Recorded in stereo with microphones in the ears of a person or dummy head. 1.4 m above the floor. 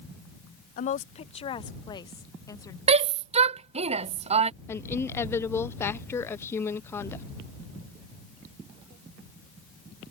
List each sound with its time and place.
0.8 s a woman speaking: 40° left (ahead or behind); by 2.8 s 15° left (ahead or behind)
2.9 s a shout: 35° right (ahead or behind)
4.7 s a woman speaking: 15° left (ahead or behind)